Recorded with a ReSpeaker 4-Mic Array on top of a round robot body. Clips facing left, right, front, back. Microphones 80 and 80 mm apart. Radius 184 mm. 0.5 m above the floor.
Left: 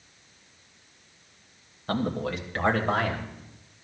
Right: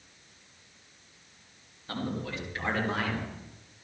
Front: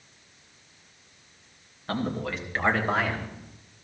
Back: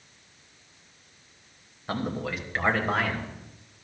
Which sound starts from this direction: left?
A man speaking, at 1.9 s.